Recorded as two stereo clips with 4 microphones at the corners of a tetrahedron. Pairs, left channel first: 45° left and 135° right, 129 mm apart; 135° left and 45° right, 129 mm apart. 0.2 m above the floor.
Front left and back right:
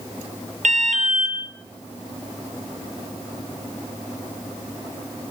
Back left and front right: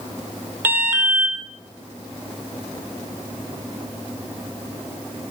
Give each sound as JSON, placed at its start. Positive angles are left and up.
{"t": 0.6, "sound": "an alarm", "azimuth_deg": -120, "distance_m": 6.0}